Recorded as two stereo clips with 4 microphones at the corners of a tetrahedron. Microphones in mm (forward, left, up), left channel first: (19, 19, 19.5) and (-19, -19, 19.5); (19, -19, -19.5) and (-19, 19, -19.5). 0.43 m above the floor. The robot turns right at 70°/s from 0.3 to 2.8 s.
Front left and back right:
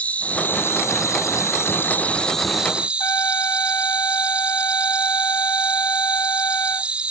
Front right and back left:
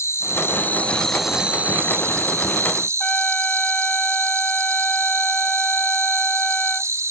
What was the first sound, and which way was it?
An insect, 20° right.